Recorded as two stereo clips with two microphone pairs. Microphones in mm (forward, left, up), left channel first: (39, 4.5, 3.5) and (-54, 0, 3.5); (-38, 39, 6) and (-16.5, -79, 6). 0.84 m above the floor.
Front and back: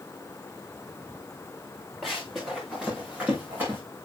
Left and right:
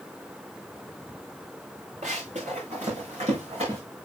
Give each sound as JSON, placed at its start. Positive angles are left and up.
{"t": 2.0, "sound": "running footsteps", "azimuth_deg": -90, "distance_m": 5.0}